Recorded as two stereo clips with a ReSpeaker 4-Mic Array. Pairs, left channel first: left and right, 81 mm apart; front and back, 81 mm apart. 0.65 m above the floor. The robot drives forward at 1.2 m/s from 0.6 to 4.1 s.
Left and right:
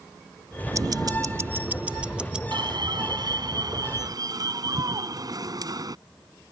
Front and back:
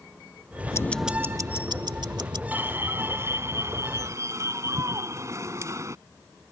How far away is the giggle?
No giggle in this recording.